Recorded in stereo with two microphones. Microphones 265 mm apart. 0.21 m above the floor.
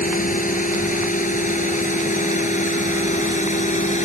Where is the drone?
30° left (ahead or behind); by 4.1 s 25° left (ahead or behind).